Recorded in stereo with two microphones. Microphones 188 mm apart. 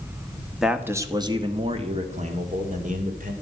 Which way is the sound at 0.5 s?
Centre (ahead or behind).